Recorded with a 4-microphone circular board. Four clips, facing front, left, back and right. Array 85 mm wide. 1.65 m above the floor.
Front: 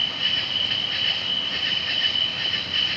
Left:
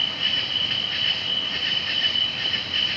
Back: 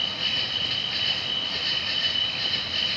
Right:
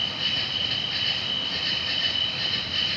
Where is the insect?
50° left, 1.2 m.